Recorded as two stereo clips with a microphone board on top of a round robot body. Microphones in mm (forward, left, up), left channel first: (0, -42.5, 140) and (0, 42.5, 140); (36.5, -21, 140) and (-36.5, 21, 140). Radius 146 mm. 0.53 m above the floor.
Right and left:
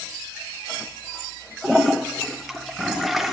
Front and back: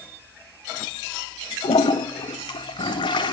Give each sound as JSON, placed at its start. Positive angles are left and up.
{"t": 1.6, "sound": "a toilet flushing", "azimuth_deg": 0, "distance_m": 0.5}